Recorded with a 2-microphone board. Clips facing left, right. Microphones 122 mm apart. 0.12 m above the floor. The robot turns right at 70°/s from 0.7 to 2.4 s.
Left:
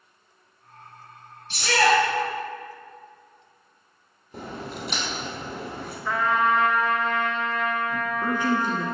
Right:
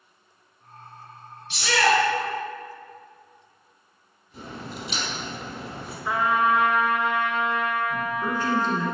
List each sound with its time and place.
1.5 s a shout: 90° left, 1.3 m; by 2.0 s 125° left, 1.3 m
4.3 s a crack: 55° left (ahead or behind), 1.4 m
6.0 s a trumpet: 15° right (ahead or behind), 0.5 m
7.9 s a man speaking: 15° left (ahead or behind), 1.1 m